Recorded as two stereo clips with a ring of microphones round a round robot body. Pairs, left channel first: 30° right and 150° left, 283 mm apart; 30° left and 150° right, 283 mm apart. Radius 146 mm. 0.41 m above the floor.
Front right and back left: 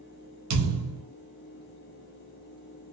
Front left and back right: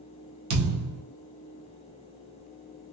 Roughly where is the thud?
Behind.